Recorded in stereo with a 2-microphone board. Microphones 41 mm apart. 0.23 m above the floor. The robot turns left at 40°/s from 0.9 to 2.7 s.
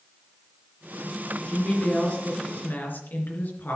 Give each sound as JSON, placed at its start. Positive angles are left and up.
{"t": 1.5, "sound": "a woman speaking", "azimuth_deg": 175, "distance_m": 3.5}